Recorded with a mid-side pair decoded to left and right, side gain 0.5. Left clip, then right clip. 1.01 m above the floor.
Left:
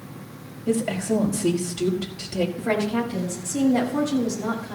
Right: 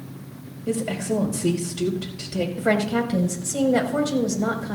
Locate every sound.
0.7 s a woman speaking: 5° right, 4.5 m
2.6 s a woman speaking: 55° right, 4.5 m